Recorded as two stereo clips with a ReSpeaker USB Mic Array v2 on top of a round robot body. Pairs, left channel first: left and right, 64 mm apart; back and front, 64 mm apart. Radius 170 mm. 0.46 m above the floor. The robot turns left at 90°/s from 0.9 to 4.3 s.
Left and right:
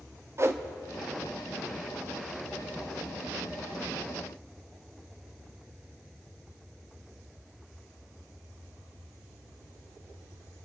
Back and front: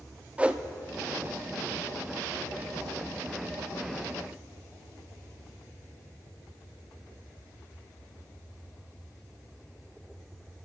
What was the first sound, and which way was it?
A whoosh, 65° right.